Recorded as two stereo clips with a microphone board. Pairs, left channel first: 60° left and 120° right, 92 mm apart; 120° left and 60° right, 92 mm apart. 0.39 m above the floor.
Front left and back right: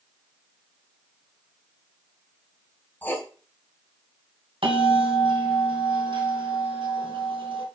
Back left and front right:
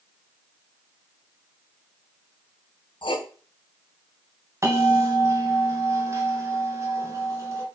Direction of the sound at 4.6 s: 115° right.